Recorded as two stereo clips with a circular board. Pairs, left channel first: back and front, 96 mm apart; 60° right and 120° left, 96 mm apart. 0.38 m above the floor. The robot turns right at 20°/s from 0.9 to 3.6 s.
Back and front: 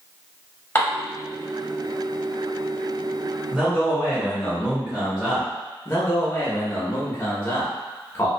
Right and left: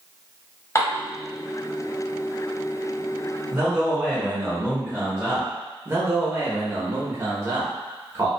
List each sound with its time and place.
0.8 s dishes clattering: 115° right, 1.4 m; by 1.0 s 110° right, 1.4 m
3.5 s a man speaking: 65° left, 0.9 m
5.8 s a man speaking: 150° left, 0.8 m